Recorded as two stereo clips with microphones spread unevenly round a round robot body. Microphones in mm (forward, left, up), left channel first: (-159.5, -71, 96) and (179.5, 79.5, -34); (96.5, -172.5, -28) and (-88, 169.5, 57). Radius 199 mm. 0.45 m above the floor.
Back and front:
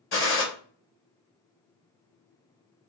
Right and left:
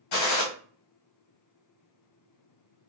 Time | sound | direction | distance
0.1 | a gunshot | 90° right | 2 m